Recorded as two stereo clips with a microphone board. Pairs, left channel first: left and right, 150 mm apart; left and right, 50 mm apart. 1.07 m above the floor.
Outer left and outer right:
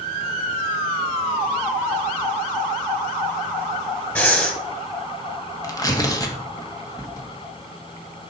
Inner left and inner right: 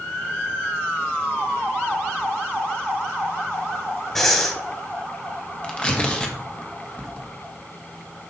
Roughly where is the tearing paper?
Left.